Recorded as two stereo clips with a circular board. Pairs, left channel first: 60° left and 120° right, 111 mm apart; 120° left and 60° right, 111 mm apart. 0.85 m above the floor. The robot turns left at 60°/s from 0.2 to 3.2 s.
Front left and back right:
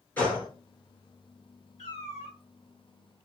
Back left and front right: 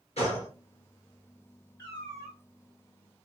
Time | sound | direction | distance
0.2 | a gunshot | 135° left | 2.5 m
1.8 | a cat meowing | 60° left | 2.5 m